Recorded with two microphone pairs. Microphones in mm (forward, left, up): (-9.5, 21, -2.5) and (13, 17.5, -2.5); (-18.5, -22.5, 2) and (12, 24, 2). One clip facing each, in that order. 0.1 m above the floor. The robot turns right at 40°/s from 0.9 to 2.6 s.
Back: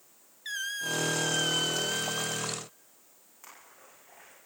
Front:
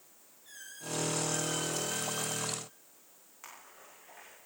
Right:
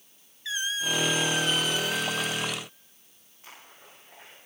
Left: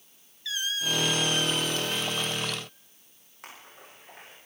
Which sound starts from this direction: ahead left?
A splash, at 3.4 s.